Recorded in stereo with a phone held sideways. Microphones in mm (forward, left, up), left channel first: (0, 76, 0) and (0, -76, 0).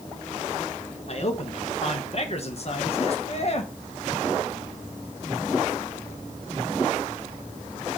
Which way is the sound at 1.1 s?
50° left (ahead or behind).